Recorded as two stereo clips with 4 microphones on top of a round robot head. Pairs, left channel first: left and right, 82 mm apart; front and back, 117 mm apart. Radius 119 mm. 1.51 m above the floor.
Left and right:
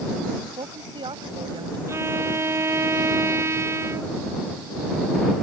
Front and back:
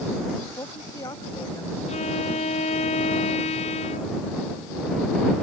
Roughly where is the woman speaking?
Ahead right.